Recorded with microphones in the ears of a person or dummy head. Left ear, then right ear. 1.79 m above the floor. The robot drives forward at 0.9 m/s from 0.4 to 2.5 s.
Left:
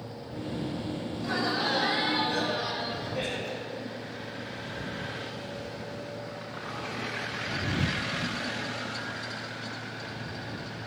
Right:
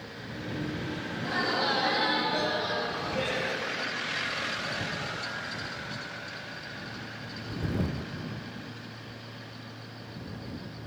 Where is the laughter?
85° left, 5 m; by 3.6 s 80° left, 5.5 m.